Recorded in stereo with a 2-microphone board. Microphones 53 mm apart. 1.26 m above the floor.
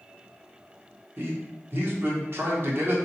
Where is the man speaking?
45° right (ahead or behind), 0.9 m.